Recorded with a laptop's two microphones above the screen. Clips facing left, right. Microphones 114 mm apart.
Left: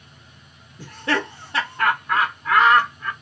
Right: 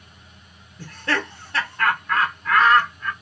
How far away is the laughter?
About 0.7 m.